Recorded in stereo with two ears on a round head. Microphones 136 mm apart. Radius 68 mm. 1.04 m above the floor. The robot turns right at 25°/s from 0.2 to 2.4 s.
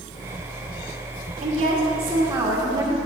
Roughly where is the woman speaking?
Right.